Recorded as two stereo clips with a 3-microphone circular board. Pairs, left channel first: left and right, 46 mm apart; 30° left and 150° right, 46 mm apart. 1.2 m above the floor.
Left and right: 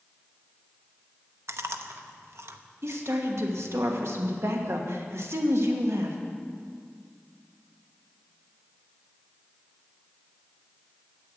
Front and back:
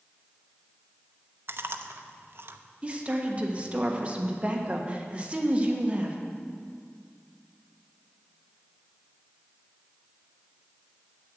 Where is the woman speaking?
85° right, 1.2 m.